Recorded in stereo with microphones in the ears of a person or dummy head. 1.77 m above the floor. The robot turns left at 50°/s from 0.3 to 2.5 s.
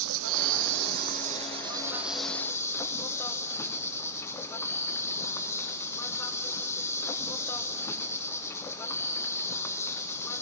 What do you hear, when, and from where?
0.0 s an insect: 85° right, 1.0 m; by 10.4 s 165° left, 1.0 m